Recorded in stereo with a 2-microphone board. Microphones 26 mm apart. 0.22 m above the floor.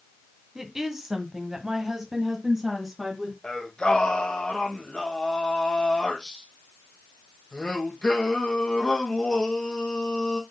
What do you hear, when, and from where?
0.6 s a woman speaking: 15° right (ahead or behind), 1.9 m; by 3.3 s 20° right (ahead or behind), 2.5 m
3.4 s singing: 35° left (ahead or behind), 3 m